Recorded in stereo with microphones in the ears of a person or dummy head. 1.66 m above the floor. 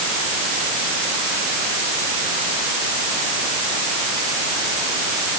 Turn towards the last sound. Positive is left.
No sound to turn to.